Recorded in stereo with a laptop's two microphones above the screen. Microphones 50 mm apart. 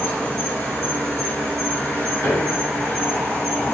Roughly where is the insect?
Left.